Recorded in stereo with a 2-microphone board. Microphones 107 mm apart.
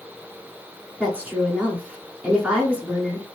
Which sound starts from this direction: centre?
A woman speaking, at 1.0 s.